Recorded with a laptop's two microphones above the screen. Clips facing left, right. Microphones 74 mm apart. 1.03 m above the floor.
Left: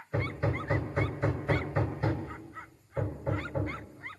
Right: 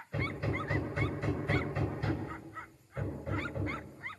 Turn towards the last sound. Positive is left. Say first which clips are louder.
# left 3 dB
turn(degrees=30)  # may be behind; listen again after turning